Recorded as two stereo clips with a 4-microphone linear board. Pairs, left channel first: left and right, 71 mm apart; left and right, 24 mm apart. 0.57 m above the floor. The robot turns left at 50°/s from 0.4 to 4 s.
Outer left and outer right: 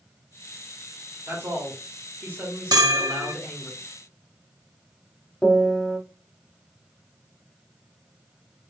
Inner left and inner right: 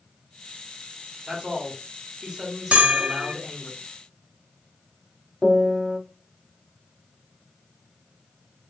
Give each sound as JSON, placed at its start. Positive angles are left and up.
{"t": 1.3, "sound": "a man speaking", "azimuth_deg": -80, "distance_m": 1.4}
{"t": 2.7, "sound": "a bell", "azimuth_deg": -95, "distance_m": 0.7}
{"t": 5.4, "sound": "a piano", "side_deg": 10, "distance_m": 0.9}